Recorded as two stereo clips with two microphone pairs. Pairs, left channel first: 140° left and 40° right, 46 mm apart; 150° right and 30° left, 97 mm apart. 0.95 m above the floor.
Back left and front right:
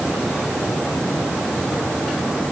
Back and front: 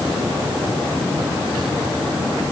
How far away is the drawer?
I don't hear a drawer.